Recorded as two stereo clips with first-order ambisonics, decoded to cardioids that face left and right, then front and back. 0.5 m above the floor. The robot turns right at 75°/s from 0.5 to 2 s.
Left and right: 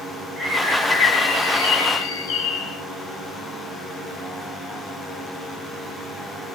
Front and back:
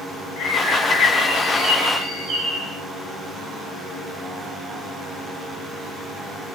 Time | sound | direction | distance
0.4 | a bird | 5° right | 1.5 m